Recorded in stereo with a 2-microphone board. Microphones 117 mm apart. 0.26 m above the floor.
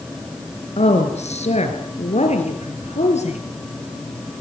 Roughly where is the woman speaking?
Left.